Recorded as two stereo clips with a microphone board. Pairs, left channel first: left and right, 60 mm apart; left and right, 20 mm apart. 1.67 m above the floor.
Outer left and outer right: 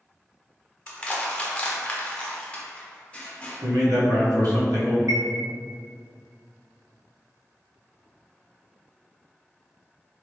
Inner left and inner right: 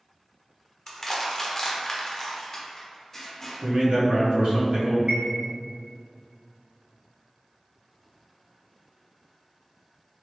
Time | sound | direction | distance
0.9 | crushing | 20° left (ahead or behind) | 0.8 m
3.6 | a man speaking | 75° right (ahead or behind) | 1.2 m
5.1 | a chime | 60° right (ahead or behind) | 0.7 m